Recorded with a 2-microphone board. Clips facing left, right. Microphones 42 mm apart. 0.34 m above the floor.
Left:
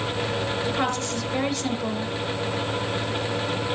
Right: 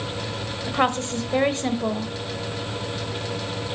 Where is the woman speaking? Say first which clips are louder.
Right 2 dB; 35° right (ahead or behind), 1.1 m.